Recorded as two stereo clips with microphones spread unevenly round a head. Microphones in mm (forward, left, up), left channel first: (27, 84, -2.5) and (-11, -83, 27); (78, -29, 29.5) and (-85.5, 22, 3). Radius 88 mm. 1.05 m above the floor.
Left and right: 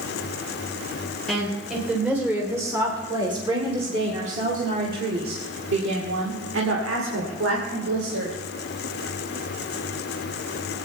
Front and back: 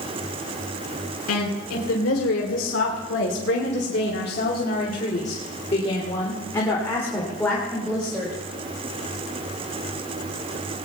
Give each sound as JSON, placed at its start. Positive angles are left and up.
{"t": 1.3, "sound": "a woman speaking", "azimuth_deg": -15, "distance_m": 3.5}